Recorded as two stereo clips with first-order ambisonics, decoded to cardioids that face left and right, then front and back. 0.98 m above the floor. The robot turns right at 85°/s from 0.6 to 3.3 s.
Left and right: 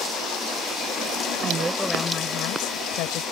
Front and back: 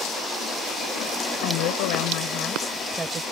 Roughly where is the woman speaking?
Ahead right.